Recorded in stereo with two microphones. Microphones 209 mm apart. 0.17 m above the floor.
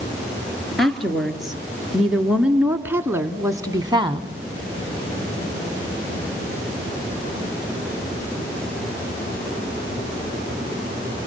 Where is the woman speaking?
Centre (ahead or behind), 2.5 m; by 4.3 s 25° right (ahead or behind), 1.1 m.